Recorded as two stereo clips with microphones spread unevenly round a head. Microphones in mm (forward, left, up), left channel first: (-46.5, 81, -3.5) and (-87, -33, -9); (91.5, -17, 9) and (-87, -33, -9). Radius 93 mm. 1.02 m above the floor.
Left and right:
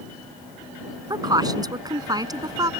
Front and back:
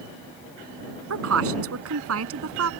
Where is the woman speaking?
170° right.